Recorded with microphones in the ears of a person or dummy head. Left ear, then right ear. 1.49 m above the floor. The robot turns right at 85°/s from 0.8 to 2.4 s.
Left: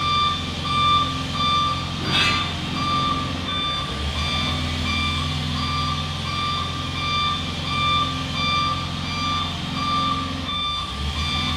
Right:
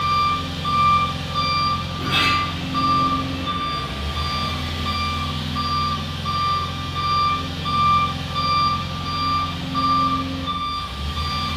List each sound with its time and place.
0.0 s an engine running: 5° right (ahead or behind), 0.9 m; by 11.6 s 20° left (ahead or behind), 0.9 m
1.9 s a sliding door: 140° right, 1.5 m; by 4.9 s 95° right, 1.5 m